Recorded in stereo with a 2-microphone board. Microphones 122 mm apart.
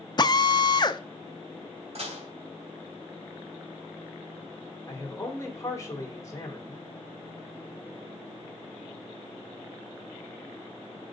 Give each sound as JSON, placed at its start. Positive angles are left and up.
{"t": 0.2, "sound": "a drill", "side_deg": 35, "distance_m": 0.6}
{"t": 1.9, "sound": "dishes clattering", "side_deg": -60, "distance_m": 2.5}
{"t": 4.9, "sound": "a man speaking", "side_deg": 25, "distance_m": 2.5}